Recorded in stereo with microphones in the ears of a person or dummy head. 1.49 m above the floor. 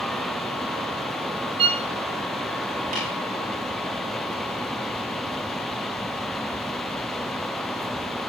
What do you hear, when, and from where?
1.6 s a violin: 30° right (ahead or behind), 0.9 m
2.9 s tapping: 40° right (ahead or behind), 7.5 m